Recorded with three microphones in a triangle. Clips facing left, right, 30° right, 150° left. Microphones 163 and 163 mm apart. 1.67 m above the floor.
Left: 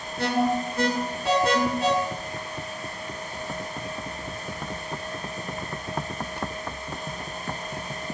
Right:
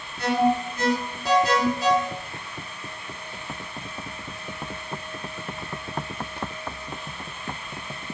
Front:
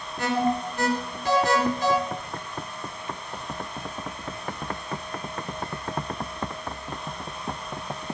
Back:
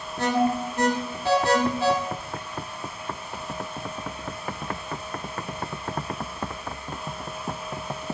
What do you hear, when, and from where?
0.2 s an alarm: 115° left, 1.9 m